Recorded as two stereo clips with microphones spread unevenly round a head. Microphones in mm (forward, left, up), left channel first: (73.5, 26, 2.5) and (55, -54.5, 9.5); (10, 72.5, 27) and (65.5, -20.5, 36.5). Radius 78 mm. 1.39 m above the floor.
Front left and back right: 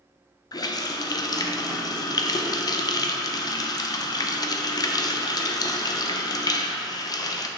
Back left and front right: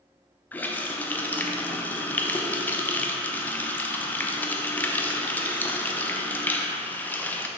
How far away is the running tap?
About 0.5 m.